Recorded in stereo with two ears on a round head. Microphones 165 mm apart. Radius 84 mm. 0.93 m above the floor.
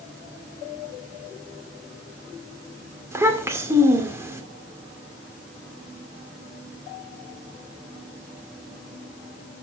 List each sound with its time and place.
3.1 s a child speaking: 15° right (ahead or behind), 2 m